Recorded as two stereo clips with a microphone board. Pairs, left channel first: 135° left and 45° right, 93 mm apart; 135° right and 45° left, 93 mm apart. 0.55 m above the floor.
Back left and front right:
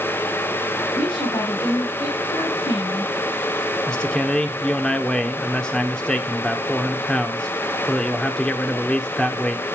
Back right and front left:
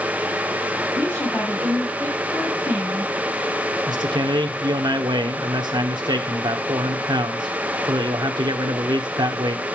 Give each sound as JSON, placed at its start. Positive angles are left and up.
{"t": 0.9, "sound": "a woman speaking", "azimuth_deg": 160, "distance_m": 5.0}
{"t": 3.9, "sound": "a man speaking", "azimuth_deg": 55, "distance_m": 1.3}